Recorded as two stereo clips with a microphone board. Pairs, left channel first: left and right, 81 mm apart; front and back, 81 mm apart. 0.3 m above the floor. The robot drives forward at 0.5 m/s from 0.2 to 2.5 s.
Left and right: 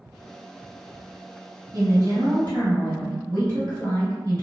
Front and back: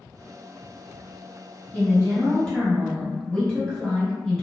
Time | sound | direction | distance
1.7 | a woman speaking | 60° right | 1.9 m